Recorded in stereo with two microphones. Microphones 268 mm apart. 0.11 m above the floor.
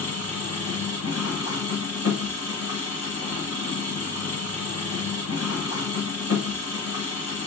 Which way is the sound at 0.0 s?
65° left (ahead or behind).